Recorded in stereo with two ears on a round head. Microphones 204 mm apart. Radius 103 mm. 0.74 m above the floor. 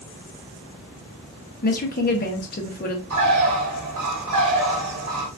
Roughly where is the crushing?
No crushing in this recording.